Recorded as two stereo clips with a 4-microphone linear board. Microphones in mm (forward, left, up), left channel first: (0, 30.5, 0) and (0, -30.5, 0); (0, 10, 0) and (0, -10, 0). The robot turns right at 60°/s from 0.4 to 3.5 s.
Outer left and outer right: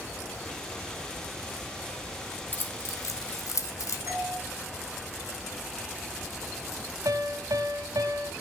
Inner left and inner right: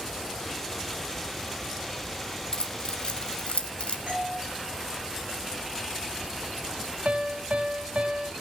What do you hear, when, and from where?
2.5 s keys jangling: 35° left (ahead or behind), 1.2 m; by 4.0 s 65° left (ahead or behind), 1.2 m
4.1 s a doorbell: 65° right (ahead or behind), 7.5 m
7.0 s a piano: 75° right (ahead or behind), 1.3 m